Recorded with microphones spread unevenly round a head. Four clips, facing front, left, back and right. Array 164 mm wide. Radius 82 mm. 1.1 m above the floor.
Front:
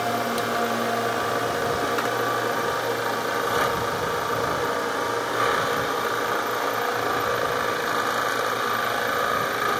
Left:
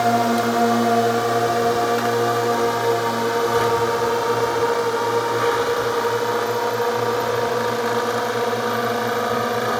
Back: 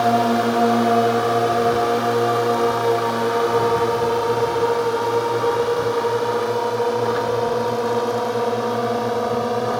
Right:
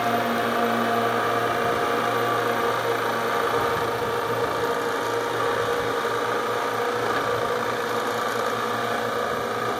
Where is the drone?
145° left; by 9.8 s 150° left.